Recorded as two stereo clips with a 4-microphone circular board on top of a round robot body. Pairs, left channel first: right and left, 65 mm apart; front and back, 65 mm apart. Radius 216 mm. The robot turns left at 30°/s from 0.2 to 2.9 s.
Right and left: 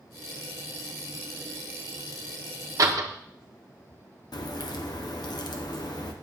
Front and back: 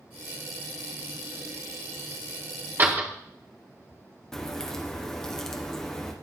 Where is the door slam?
125° left, 1.4 m; by 3.1 s 120° left, 1.4 m.